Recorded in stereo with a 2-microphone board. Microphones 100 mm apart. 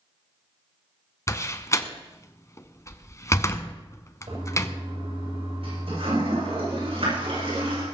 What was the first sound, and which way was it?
A door slam, 30° left (ahead or behind).